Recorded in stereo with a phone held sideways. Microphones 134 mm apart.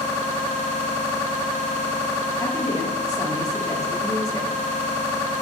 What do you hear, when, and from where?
2.4 s a woman speaking: 30° left (ahead or behind), 2 m